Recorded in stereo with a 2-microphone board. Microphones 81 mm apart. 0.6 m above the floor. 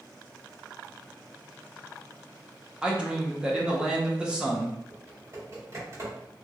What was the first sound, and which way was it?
A man speaking, 10° right (ahead or behind).